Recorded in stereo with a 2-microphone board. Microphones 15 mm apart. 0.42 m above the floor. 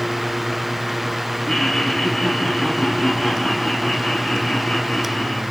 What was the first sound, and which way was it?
Laughter, 40° left (ahead or behind).